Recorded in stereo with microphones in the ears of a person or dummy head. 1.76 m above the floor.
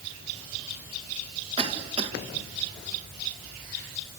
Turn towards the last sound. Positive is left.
turn(degrees=-35)  # may be behind; listen again after turning